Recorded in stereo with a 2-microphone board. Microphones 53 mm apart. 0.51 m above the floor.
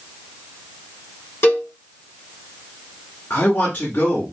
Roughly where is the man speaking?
Left.